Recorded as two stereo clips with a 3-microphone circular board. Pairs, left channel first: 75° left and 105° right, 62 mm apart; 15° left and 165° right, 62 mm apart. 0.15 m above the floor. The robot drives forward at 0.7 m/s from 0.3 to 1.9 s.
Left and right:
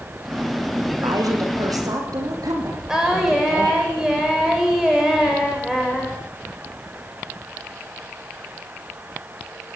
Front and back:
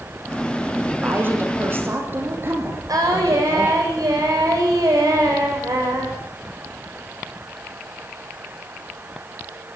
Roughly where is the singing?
Behind.